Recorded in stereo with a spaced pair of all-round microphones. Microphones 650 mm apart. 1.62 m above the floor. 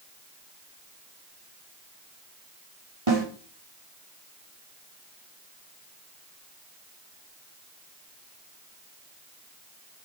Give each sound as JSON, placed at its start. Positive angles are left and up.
{"t": 3.1, "sound": "a snare drum", "side_deg": -45, "distance_m": 4.5}